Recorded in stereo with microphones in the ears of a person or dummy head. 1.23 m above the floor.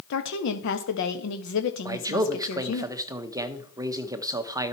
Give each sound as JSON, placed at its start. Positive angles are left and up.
{"t": 0.1, "sound": "a woman speaking", "side_deg": 70, "distance_m": 1.4}
{"t": 1.9, "sound": "a man speaking", "side_deg": -15, "distance_m": 0.8}